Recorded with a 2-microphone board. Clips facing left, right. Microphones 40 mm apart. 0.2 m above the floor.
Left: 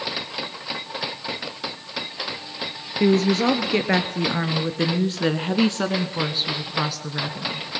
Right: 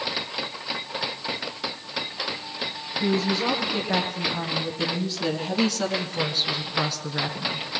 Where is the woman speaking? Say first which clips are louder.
Left 6 dB; 65° left (ahead or behind), 3 m; by 7.8 s 10° right (ahead or behind), 2.0 m.